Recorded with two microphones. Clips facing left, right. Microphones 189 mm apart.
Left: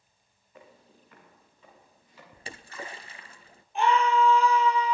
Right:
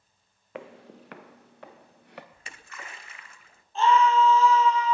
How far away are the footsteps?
About 0.8 m.